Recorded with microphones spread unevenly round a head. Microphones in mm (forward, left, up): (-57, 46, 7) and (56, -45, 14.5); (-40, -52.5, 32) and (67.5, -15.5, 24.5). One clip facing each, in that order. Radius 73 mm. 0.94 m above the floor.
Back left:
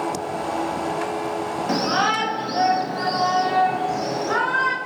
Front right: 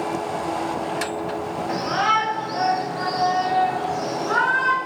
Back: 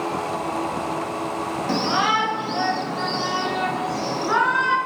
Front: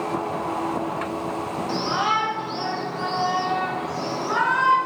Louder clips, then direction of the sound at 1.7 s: Back left 1 dB, back 3 dB; 170° left.